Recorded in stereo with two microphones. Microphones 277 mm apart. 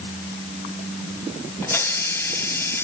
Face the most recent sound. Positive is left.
turn(degrees=10)  # may be behind; listen again after turning